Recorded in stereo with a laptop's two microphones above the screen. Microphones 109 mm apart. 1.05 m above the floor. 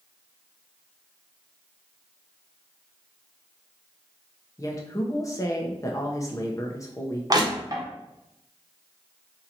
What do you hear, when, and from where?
4.6 s a woman speaking: 30° left (ahead or behind), 1.0 m
7.3 s crushing: 35° right (ahead or behind), 0.7 m